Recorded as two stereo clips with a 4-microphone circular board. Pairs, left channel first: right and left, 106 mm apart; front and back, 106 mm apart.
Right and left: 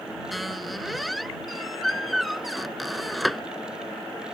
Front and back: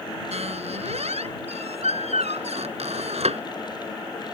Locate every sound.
0.3 s a squeak: straight behind